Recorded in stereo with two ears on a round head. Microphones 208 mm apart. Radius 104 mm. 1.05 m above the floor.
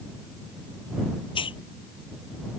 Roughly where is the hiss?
Left.